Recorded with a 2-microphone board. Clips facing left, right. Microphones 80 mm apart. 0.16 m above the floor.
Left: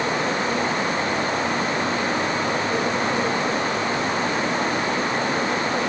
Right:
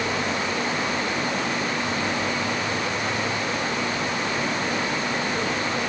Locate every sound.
Only background noise.